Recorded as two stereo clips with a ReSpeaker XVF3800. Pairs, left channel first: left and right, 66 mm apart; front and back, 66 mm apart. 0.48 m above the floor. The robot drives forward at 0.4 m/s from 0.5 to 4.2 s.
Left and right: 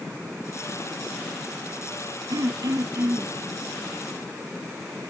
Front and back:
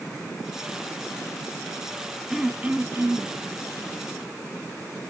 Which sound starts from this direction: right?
Throat clearing, at 2.3 s.